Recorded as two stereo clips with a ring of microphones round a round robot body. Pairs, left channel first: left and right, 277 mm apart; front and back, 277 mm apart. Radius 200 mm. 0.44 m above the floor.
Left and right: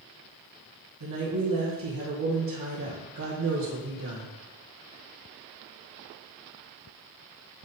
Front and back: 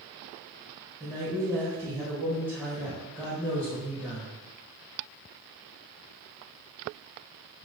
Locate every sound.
1.0 s a woman speaking: 100° right, 1.7 m